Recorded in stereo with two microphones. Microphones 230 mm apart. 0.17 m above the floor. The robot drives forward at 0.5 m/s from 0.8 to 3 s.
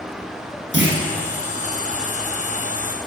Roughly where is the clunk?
Right.